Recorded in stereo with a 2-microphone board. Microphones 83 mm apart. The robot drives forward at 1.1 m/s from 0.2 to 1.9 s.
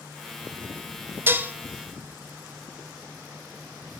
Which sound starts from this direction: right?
Dishes clattering, at 1.3 s.